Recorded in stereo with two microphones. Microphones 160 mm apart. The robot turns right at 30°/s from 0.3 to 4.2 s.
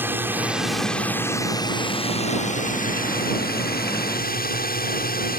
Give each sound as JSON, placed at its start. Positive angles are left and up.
{"t": 0.0, "sound": "a drone", "azimuth_deg": -15}